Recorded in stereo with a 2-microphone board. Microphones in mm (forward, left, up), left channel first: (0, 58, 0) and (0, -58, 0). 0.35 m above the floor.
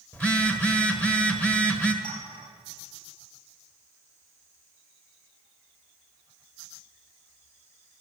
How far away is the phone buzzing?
About 1.4 m.